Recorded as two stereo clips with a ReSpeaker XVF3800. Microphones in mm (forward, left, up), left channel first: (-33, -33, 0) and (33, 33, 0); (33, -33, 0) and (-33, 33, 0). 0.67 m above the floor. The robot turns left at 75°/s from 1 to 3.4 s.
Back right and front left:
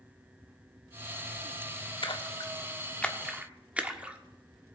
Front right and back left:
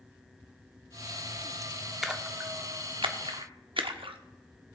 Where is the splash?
135° right, 0.9 m; by 4.2 s 120° left, 0.9 m.